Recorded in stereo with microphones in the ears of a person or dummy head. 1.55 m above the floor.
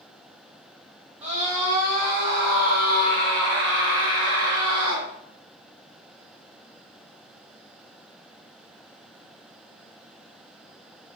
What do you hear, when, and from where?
1.2 s a scream: 30° right (ahead or behind), 2 m; by 5.1 s 80° right, 3 m